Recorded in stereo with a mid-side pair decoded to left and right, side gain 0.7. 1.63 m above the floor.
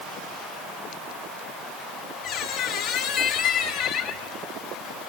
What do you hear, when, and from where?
2.2 s a squeak: 70° left, 6 m